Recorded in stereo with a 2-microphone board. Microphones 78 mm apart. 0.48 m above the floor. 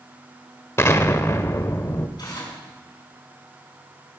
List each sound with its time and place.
0.8 s an explosion: 30° left (ahead or behind), 0.8 m
2.2 s tearing paper: 60° left (ahead or behind), 5 m